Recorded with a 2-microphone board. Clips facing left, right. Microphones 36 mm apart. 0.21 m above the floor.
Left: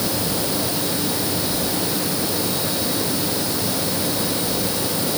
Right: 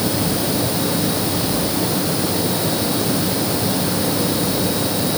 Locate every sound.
Only background noise.